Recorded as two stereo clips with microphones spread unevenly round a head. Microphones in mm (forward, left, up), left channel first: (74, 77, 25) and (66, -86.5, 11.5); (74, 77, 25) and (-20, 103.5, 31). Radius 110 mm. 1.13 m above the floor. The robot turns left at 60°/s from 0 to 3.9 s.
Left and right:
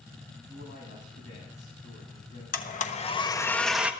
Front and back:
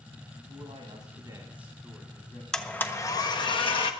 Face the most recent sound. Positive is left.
turn(degrees=-15)